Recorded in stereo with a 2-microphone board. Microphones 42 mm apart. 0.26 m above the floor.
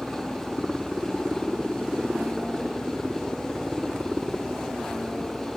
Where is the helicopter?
10° right (ahead or behind).